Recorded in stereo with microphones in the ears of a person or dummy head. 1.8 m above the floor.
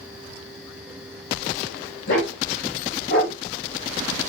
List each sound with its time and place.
2.1 s a dog barking: 65° left (ahead or behind), 5 m; by 3.4 s 70° left (ahead or behind), 4 m